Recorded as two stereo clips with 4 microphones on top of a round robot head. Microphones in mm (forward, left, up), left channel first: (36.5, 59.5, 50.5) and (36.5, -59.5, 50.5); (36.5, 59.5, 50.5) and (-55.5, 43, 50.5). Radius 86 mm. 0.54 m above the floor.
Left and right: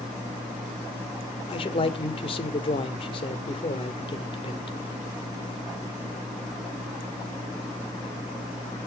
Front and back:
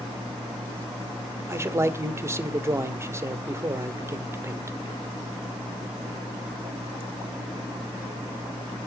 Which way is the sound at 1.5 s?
130° left.